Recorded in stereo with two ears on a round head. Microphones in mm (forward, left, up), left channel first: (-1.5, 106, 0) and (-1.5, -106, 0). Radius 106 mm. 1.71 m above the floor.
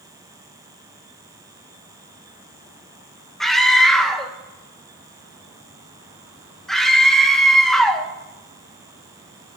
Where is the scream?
Centre (ahead or behind), 1.3 m.